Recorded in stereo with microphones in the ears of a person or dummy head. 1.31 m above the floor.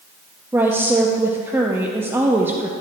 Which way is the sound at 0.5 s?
15° right (ahead or behind).